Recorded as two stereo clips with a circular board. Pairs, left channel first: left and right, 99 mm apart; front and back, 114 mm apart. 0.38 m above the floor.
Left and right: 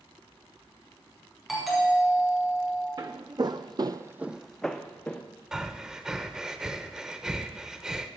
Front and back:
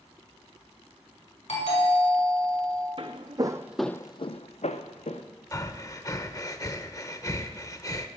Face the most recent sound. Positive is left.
turn(degrees=-15)